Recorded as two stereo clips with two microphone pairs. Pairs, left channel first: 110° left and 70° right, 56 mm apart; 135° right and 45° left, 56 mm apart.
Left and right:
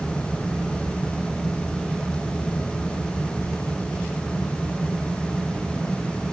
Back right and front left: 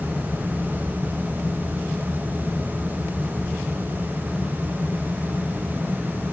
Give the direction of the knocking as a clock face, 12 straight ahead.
I don't hear knocking.